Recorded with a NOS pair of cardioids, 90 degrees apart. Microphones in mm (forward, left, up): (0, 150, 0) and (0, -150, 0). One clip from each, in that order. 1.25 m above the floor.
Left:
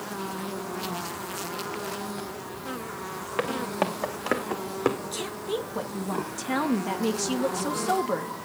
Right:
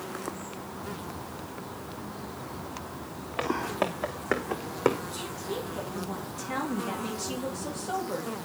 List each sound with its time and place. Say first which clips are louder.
3.4 s footsteps: left 1 dB; 25° left, 4 m; by 5.0 s 5° right, 3 m
5.1 s a woman speaking: left 4 dB; 55° left, 2.5 m